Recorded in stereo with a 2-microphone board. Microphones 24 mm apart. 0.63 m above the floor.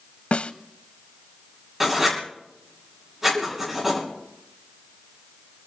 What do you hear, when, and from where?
0.3 s a snare drum: 55° left (ahead or behind), 0.6 m
1.8 s writing: 10° right (ahead or behind), 6.5 m
3.3 s a giggle: 65° right (ahead or behind), 5.5 m